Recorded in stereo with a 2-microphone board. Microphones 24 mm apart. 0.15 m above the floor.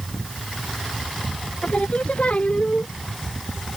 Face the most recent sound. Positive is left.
turn(degrees=55)  # may be behind; listen again after turning